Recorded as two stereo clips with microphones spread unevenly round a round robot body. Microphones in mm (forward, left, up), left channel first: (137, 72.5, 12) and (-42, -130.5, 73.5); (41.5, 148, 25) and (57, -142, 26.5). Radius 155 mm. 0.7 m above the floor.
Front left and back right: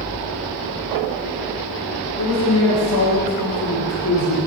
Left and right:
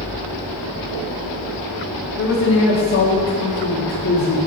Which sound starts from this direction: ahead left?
A man speaking, at 2.2 s.